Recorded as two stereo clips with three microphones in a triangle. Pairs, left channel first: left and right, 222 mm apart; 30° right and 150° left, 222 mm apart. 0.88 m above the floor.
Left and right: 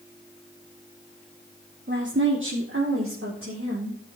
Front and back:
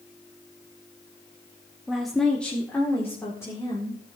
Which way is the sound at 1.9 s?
125° right.